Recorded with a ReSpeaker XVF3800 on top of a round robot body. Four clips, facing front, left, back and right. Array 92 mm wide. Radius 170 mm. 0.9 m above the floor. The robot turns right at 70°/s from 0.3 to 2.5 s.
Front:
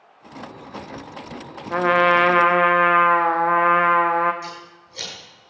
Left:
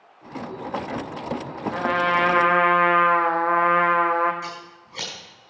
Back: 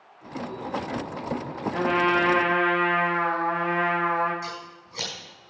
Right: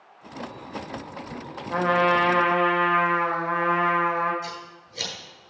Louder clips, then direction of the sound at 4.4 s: Left 1 dB, even; 115° left.